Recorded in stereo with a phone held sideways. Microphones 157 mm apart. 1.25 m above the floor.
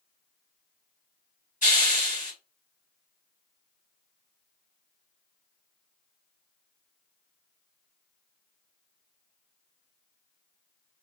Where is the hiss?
50° left (ahead or behind), 2 m.